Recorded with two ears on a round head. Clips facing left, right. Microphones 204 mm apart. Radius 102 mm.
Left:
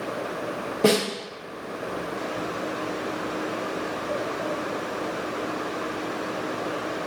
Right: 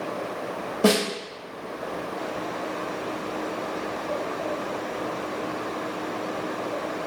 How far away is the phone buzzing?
I don't hear a phone buzzing.